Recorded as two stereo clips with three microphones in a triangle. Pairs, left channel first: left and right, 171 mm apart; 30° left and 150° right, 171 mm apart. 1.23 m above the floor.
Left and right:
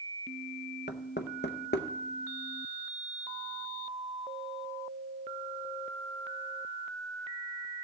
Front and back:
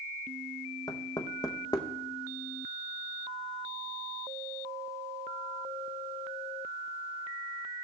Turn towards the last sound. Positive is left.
turn(degrees=95)